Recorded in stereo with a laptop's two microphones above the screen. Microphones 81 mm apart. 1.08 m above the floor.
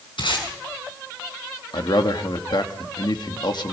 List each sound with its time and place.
0.2 s tape being pulled: 85° left, 6 m
1.7 s a man speaking: 65° left (ahead or behind), 2.0 m